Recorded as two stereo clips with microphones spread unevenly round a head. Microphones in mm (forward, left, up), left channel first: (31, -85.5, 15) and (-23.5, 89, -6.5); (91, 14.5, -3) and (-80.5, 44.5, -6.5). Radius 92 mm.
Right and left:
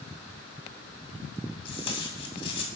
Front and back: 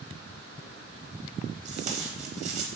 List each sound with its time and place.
1.6 s tape being pulled: 135° right, 1.9 m